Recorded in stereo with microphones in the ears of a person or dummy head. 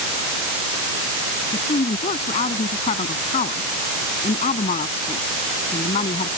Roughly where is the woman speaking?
Left.